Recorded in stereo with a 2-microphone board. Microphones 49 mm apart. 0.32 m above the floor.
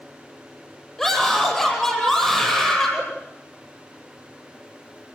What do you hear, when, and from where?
1.0 s a scream: 10° left (ahead or behind), 9 m